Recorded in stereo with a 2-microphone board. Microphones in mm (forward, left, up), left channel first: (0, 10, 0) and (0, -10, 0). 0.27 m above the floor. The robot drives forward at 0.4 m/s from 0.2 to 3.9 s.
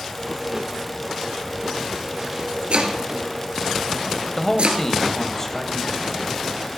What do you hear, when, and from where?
2.7 s chopping: 75° right (ahead or behind), 2.5 m; by 4.8 s 80° right, 2.5 m
4.4 s a man speaking: 20° left (ahead or behind), 1.4 m